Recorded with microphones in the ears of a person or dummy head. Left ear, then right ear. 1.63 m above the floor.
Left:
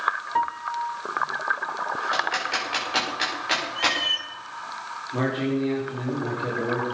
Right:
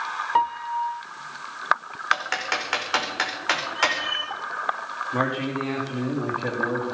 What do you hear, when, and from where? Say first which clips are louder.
0.3 s a piano: right 3 dB; 35° right (ahead or behind), 0.6 m
2.1 s typing on a keyboard: right 3 dB; 50° right (ahead or behind), 5.5 m
3.8 s a cat meowing: even; 15° right (ahead or behind), 7 m
5.1 s a man speaking: even; 70° right (ahead or behind), 4 m